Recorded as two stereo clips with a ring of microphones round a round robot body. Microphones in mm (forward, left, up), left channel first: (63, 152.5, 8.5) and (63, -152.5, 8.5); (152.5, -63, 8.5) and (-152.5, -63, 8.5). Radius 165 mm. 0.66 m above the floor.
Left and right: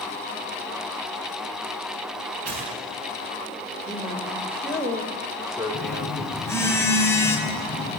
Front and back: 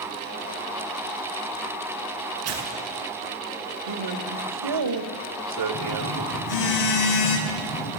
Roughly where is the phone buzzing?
Ahead.